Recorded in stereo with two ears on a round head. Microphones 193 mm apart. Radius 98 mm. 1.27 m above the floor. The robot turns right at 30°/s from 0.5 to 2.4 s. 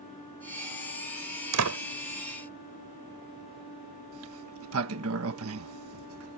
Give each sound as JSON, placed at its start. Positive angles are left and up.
{"t": 1.5, "sound": "a door slam", "side_deg": -80}
{"t": 4.1, "sound": "a sliding door", "side_deg": -75}